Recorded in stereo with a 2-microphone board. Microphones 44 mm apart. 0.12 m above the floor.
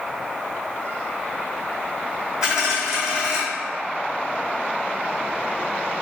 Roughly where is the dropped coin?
Centre.